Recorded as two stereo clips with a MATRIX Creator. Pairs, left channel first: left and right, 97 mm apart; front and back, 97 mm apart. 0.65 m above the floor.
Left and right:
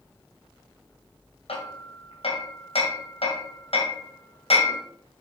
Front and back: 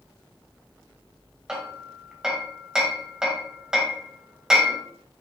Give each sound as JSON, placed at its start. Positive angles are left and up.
{"t": 1.5, "sound": "hammering", "azimuth_deg": 95, "distance_m": 2.0}